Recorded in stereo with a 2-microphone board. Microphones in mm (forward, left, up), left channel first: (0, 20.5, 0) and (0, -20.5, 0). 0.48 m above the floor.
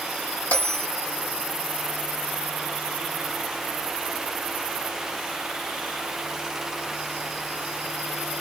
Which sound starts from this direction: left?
A bell, at 0.5 s.